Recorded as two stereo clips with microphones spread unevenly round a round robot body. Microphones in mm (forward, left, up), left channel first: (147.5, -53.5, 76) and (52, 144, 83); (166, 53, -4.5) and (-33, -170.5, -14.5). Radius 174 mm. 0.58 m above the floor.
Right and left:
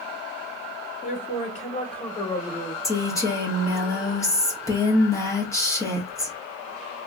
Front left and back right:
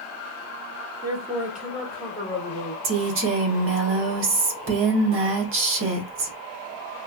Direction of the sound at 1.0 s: 70° right.